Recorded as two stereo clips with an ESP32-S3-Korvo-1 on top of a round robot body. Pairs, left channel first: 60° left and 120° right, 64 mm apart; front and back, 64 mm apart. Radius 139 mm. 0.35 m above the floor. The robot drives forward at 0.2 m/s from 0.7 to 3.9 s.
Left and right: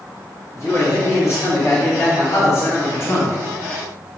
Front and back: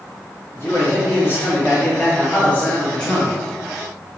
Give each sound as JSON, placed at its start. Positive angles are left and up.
{"t": 0.5, "sound": "a man speaking", "azimuth_deg": 40, "distance_m": 1.3}